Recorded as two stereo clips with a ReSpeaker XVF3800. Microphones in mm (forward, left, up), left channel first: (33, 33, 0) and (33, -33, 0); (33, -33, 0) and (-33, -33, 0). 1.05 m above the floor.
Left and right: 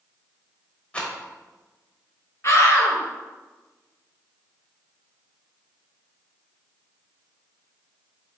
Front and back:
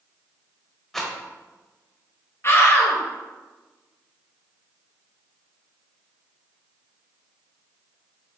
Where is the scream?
45° left, 1.0 m.